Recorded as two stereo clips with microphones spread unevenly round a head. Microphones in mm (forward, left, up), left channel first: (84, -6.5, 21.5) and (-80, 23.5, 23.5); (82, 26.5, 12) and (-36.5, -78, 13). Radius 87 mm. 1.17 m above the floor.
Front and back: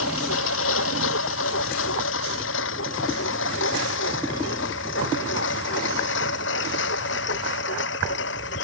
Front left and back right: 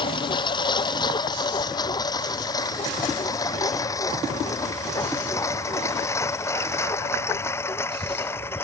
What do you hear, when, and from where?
0.0 s a lawn mower: 20° right; by 8.6 s 35° right